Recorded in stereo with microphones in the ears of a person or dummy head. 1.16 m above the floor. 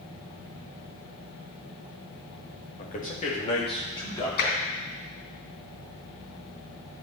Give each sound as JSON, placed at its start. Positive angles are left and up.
{"t": 2.8, "sound": "a man speaking", "side_deg": 45, "distance_m": 1.5}
{"t": 4.4, "sound": "tapping", "side_deg": 60, "distance_m": 3.5}